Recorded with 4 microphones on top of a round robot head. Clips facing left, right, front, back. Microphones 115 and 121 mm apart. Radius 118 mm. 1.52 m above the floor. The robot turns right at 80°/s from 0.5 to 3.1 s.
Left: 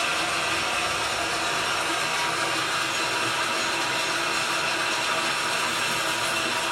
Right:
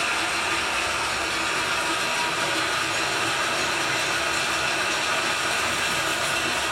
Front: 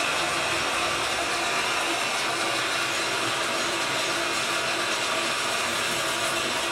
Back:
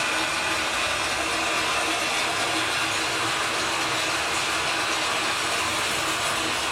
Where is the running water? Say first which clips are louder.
Even, even; 70° left, 1.5 m; by 6.7 s 80° right, 1.5 m.